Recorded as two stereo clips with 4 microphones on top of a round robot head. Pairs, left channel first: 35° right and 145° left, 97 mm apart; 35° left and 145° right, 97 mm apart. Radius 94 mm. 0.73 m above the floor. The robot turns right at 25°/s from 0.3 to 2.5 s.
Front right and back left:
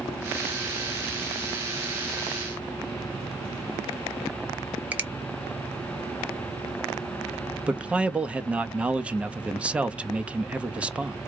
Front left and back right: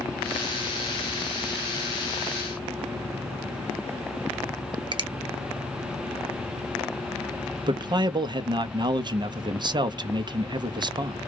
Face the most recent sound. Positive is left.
turn(degrees=-145)